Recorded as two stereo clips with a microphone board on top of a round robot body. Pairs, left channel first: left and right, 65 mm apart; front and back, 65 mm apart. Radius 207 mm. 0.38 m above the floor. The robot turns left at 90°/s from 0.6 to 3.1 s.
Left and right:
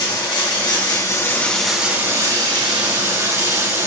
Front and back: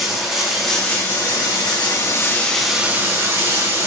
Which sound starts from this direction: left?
Running water, at 0.0 s.